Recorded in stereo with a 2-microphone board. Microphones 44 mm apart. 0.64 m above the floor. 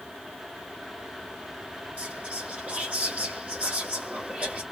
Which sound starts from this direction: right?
Whispering, at 2.0 s.